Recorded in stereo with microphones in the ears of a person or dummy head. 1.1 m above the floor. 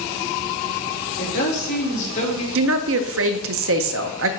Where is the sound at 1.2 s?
60° left (ahead or behind), 1.9 m; by 2.5 s 35° left (ahead or behind), 1.8 m.